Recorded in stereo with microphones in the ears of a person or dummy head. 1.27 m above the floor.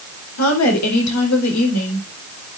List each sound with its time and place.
0.4 s a woman speaking: 80° left, 4.5 m